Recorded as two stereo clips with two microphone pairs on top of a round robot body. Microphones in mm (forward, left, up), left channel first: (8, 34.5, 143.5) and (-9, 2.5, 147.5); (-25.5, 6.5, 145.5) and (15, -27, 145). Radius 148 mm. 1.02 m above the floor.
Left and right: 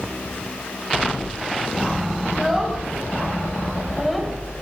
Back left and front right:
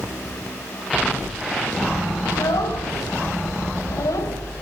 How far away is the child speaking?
About 5 m.